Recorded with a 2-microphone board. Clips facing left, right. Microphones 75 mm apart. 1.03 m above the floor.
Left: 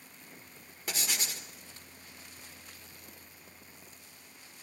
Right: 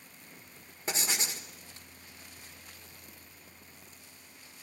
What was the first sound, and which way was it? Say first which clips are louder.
Writing: right 3 dB; 25° right (ahead or behind).